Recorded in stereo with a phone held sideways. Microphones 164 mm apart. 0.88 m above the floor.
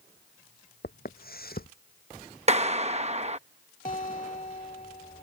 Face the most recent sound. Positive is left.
turn(degrees=50)  # may be behind; listen again after turning